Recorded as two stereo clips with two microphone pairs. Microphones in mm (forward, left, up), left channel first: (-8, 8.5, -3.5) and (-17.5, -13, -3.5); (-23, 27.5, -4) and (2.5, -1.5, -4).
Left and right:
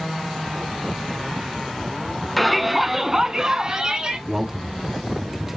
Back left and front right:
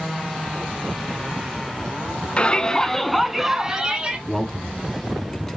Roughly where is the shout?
Behind left.